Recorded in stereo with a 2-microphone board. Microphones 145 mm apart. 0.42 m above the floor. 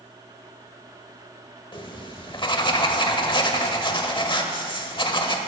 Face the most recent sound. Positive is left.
turn(degrees=35)  # may be behind; listen again after turning